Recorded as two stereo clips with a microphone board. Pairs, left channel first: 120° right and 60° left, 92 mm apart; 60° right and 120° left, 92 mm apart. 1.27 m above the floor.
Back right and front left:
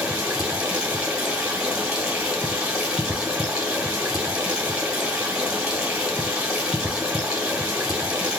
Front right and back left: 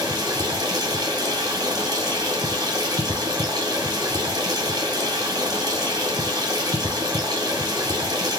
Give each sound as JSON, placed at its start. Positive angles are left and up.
{"t": 0.0, "sound": "running water", "azimuth_deg": 140, "distance_m": 1.5}